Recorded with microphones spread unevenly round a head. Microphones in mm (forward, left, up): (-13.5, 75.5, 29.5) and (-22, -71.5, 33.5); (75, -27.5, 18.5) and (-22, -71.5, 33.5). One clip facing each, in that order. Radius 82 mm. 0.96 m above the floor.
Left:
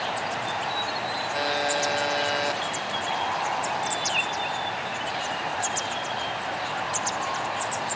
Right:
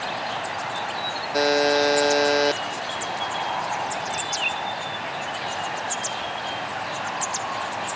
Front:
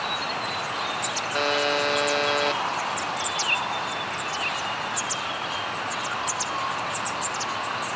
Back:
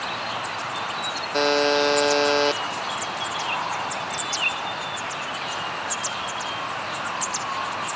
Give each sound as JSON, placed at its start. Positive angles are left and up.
{"t": 1.3, "sound": "a buzzer", "azimuth_deg": -95, "distance_m": 0.6}